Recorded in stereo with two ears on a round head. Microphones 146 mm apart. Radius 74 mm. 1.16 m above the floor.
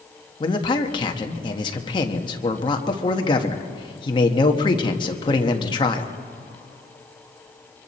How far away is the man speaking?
About 1.3 m.